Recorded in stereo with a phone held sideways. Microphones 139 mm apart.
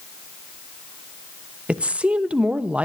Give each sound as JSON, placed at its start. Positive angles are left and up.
{"t": 1.7, "sound": "a woman speaking", "side_deg": -10, "distance_m": 1.0}